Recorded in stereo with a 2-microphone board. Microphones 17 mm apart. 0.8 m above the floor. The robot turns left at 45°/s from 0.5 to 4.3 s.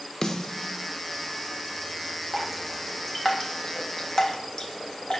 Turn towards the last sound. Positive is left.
turn(degrees=45)  # may be behind; listen again after turning